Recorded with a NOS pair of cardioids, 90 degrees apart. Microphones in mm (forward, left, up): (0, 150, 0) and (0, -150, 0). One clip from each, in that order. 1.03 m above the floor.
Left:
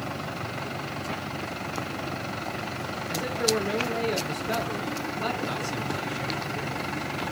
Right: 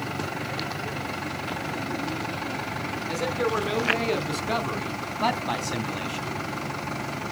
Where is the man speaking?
60° right, 3 m; by 6.3 s 45° right, 1.3 m.